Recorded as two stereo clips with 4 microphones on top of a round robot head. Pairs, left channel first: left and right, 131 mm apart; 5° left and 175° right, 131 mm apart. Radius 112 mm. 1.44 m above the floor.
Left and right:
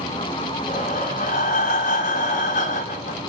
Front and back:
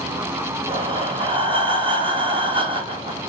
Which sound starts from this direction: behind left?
Breathing, at 0.7 s.